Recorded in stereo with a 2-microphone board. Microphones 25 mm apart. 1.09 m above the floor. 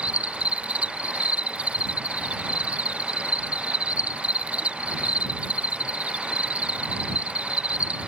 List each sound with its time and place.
0.0 s an insect: 75° right (ahead or behind)